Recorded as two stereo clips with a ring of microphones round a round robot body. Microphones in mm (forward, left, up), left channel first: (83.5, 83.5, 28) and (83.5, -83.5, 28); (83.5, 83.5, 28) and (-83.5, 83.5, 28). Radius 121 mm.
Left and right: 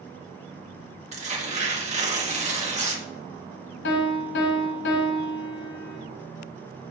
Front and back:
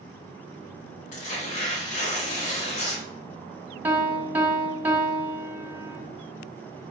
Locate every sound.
1.1 s tearing paper: 45° right, 0.9 m
3.8 s a piano: 100° left, 1.1 m